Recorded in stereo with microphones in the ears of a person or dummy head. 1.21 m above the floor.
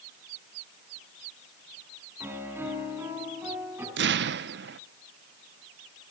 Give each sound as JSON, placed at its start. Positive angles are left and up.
{"t": 2.2, "sound": "a piano", "side_deg": -10, "distance_m": 7.0}
{"t": 4.0, "sound": "an explosion", "side_deg": -50, "distance_m": 0.8}